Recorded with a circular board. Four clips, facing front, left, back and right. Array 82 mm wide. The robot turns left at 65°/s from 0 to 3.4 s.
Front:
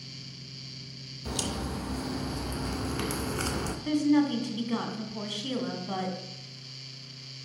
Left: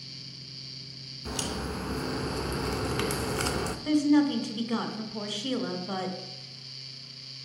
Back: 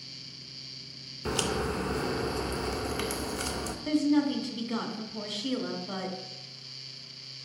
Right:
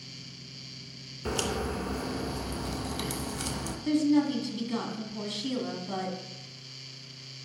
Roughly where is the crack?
Behind right.